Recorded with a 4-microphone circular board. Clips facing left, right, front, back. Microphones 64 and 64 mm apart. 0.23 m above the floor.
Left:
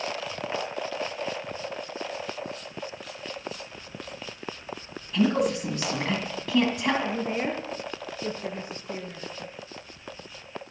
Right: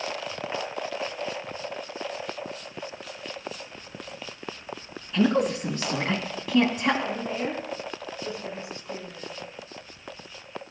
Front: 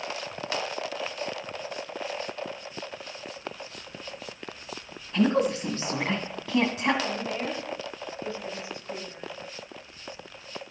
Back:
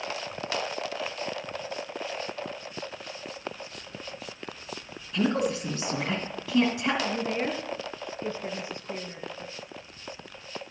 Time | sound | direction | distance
5.1 | a woman speaking | 5° right | 2 m
7.0 | a woman speaking | 130° left | 5 m